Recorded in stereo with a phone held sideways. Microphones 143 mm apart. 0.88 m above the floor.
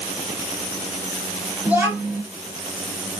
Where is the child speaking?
10° right (ahead or behind), 1.2 m.